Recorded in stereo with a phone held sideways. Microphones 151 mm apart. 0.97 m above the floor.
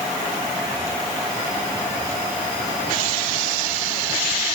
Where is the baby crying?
No baby crying in this recording.